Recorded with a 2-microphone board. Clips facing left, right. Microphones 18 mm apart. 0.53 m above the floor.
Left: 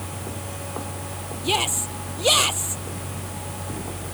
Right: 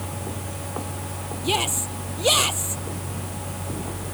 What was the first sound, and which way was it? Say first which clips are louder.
A shout: left 1 dB; 5° left (ahead or behind).